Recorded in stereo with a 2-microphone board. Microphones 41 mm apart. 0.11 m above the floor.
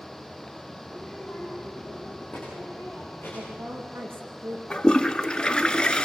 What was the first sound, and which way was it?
A child speaking, 40° left (ahead or behind).